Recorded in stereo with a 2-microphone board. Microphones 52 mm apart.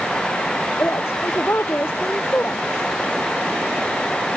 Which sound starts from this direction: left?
A woman speaking, at 0.8 s.